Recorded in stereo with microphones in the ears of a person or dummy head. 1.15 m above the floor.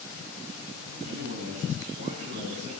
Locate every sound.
0.9 s a man speaking: 40° right (ahead or behind), 9 m